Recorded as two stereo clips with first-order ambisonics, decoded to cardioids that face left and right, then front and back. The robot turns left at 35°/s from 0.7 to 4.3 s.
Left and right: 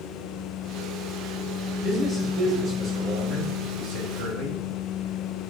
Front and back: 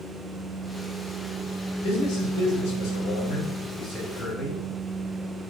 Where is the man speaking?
25° left, 4 m; by 4.6 s 60° right, 4 m.